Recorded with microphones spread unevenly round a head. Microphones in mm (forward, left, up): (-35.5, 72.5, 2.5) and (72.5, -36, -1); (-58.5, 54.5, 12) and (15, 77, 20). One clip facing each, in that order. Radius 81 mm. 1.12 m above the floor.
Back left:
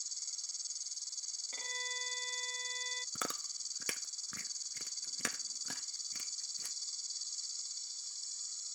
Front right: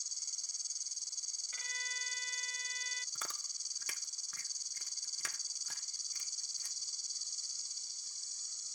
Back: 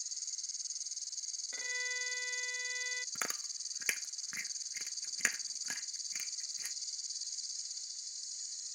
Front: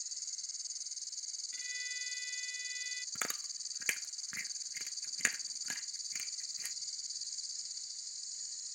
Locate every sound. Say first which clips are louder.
0.0 s an insect: front right 1 dB, back 1 dB; 25° left
1.5 s a violin: back left 4 dB, back 6 dB; straight behind
3.1 s chewing: back left 10 dB, even; 110° left